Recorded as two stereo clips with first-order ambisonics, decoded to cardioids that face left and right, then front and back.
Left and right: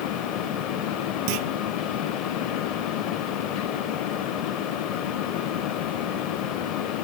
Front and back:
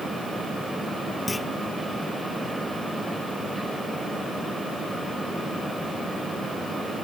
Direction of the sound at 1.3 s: 80° right.